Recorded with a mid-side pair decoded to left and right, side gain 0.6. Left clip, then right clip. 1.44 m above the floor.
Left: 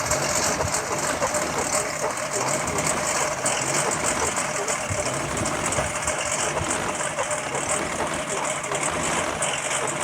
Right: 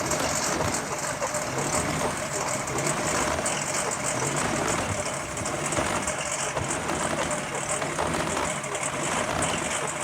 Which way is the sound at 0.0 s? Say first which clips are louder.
Left 3 dB; 30° left.